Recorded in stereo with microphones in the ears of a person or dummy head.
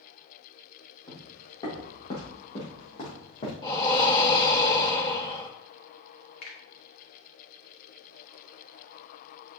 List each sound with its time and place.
1.1 s footsteps: 30° left (ahead or behind), 4 m; by 3.5 s 45° left (ahead or behind), 4.5 m
3.6 s breathing: 25° left (ahead or behind), 1.1 m
6.4 s a finger snap: 60° left (ahead or behind), 1.7 m